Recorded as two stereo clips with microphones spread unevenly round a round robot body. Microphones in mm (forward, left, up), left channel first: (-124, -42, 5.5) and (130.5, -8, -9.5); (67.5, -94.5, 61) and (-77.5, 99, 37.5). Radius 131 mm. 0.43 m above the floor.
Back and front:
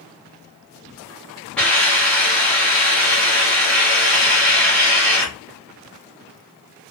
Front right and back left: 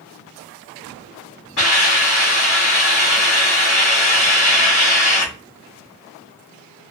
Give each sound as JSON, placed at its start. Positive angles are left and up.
{"t": 1.6, "sound": "a hiss", "azimuth_deg": -85, "distance_m": 2.5}